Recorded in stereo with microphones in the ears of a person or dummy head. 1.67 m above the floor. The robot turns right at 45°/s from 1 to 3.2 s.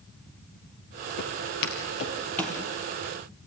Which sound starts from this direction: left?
Footsteps, at 1.2 s.